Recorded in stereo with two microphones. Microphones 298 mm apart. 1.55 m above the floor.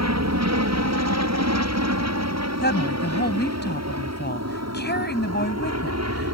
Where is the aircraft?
60° right (ahead or behind); by 6.4 s 55° right (ahead or behind).